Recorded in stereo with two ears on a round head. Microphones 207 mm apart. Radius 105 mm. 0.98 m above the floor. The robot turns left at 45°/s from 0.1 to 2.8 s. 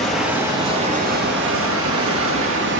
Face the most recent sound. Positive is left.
turn(degrees=-120)